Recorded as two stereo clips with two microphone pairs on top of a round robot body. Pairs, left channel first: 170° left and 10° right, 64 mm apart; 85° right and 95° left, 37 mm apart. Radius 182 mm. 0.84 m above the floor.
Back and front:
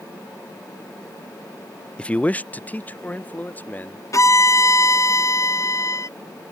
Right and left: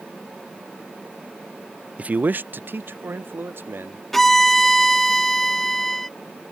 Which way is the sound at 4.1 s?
165° right.